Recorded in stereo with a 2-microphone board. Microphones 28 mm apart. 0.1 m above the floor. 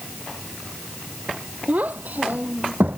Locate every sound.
1.7 s a child speaking: 65° right (ahead or behind); by 3.0 s 75° right (ahead or behind)